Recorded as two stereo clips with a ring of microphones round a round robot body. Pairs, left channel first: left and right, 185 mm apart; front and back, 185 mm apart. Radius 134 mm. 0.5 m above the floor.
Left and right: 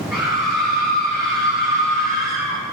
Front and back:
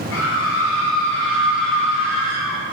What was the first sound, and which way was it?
A scream, 10° right.